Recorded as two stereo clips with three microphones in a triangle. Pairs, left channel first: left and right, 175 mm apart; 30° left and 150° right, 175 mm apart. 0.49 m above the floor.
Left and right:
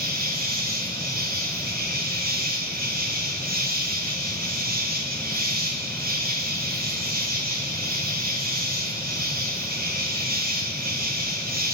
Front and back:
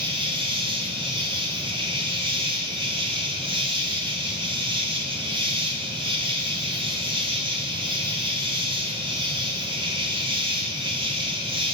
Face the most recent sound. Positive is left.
turn(degrees=-95)